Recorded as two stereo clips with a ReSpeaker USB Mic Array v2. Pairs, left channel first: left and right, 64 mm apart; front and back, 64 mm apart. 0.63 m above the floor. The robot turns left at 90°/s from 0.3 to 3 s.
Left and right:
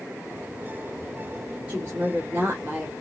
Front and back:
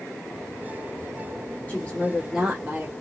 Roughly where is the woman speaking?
Ahead right.